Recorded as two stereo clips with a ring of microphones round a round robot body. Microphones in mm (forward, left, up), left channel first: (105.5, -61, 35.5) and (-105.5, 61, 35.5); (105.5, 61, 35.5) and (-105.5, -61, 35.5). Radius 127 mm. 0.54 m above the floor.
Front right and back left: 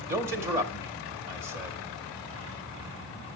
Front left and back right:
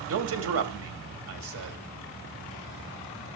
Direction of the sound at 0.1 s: 155° right.